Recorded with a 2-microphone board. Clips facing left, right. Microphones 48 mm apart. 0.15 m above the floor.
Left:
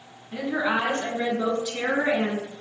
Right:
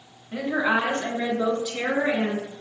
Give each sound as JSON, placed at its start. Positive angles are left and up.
{"t": 0.3, "sound": "a woman speaking", "side_deg": -30, "distance_m": 1.2}